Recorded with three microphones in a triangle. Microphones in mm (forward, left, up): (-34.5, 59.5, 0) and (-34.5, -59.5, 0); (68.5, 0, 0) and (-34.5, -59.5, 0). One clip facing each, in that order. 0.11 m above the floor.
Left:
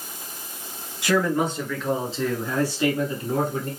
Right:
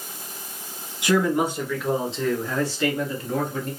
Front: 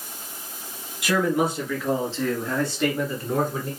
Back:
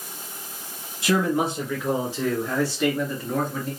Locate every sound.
1.0 s a man speaking: 145° right, 1.5 m; by 3.7 s 90° left, 1.4 m